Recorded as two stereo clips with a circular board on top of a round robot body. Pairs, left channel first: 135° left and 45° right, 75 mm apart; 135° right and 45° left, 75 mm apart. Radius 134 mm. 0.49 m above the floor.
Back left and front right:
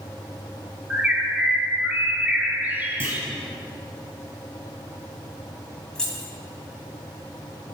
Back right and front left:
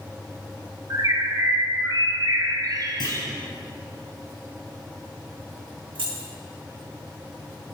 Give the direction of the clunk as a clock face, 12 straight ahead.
3 o'clock.